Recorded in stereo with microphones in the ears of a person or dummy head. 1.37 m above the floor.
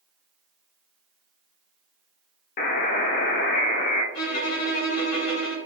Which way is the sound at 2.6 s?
45° left (ahead or behind).